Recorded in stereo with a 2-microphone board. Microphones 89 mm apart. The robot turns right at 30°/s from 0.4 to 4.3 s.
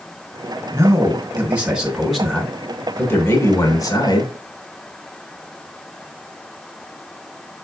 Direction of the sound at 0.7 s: 40° right.